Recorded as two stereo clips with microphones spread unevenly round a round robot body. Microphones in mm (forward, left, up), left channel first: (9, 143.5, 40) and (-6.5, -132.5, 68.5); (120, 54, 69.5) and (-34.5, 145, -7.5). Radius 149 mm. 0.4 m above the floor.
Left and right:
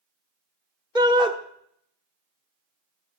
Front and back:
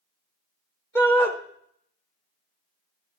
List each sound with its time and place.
0.9 s a shout: 160° right, 1.1 m